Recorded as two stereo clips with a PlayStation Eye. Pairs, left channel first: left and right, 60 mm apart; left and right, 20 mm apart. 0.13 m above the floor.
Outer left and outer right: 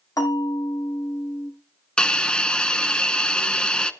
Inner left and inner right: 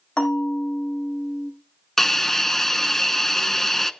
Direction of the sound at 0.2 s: 80° left.